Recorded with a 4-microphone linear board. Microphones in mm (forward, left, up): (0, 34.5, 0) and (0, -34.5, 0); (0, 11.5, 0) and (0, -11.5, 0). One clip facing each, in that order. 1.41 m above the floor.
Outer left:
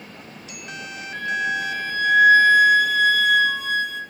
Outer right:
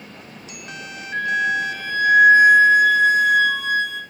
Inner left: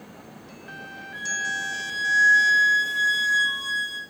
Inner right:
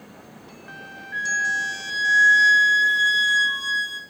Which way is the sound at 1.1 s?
50° right (ahead or behind).